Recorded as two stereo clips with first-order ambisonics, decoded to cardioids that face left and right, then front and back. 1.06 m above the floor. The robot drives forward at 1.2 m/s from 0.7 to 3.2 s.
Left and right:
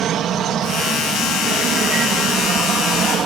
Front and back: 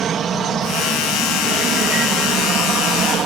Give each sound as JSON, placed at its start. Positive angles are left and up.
{"t": 0.0, "sound": "an aircraft", "azimuth_deg": -130}